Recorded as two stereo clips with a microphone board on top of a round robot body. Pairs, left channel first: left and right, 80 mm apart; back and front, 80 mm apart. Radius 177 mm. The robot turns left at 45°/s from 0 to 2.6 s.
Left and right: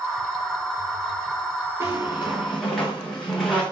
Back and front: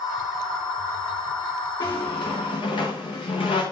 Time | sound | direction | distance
1.8 | a squeak | 145° right | 5 m